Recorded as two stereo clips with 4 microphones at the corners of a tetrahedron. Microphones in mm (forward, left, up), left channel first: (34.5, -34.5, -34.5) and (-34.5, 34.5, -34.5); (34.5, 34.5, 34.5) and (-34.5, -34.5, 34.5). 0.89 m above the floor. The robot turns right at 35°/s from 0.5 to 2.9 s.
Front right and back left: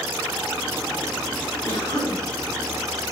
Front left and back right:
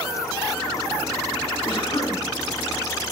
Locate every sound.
1.6 s a cough: 15° left, 3 m; by 2.2 s 35° left, 3 m